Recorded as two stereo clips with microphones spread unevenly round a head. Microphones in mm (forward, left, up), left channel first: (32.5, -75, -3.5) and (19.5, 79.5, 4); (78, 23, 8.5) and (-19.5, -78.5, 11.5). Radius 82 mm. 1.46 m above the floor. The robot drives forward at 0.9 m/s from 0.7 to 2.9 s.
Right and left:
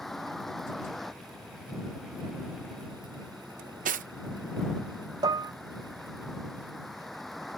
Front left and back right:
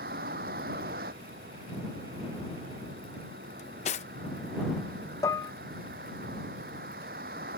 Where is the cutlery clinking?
85° left.